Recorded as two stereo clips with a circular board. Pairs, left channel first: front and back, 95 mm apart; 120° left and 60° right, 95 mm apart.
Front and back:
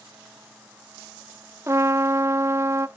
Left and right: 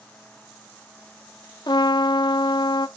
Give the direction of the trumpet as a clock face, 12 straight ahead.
8 o'clock.